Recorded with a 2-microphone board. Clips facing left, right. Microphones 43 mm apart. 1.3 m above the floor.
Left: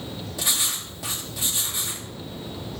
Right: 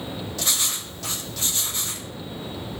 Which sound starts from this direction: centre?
Writing, at 0.4 s.